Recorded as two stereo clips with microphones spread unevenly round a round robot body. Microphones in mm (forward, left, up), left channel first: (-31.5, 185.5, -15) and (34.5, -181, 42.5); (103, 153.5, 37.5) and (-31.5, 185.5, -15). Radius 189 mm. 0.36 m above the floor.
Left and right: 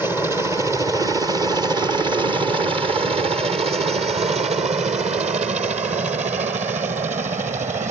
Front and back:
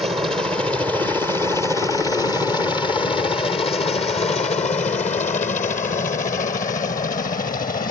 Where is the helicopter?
175° right; by 7.9 s 5° right.